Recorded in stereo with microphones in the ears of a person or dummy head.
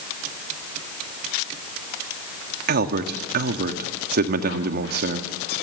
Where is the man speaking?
60° right (ahead or behind), 1.7 m.